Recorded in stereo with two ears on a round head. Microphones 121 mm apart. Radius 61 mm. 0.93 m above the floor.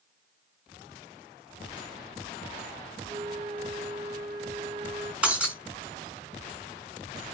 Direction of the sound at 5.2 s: 5° right (ahead or behind).